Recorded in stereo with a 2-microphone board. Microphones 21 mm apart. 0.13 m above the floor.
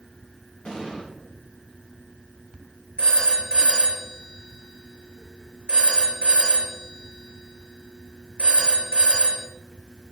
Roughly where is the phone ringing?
Left.